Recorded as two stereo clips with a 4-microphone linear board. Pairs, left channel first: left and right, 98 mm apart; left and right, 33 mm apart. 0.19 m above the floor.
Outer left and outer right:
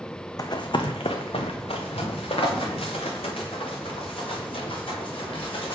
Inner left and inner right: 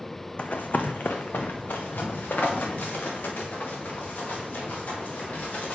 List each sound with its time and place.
0.4 s running footsteps: 40° left (ahead or behind), 0.6 m; by 5.7 s 65° left (ahead or behind), 3.5 m